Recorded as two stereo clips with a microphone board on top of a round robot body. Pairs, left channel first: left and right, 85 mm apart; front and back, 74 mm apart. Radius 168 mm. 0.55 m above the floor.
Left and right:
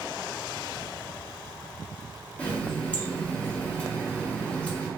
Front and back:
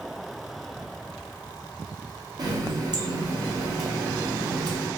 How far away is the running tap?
About 1.0 m.